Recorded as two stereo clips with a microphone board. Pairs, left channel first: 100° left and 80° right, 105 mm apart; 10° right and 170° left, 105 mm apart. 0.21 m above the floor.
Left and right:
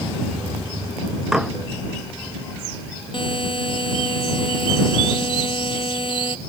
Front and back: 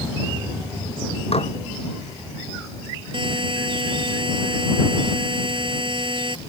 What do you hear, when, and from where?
1.3 s dishes clattering: 5° left
3.1 s a buzzer: 135° left